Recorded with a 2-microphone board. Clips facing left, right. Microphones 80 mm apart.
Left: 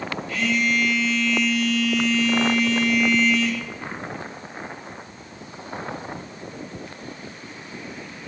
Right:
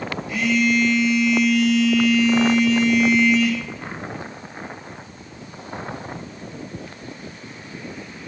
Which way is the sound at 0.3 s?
20° right (ahead or behind).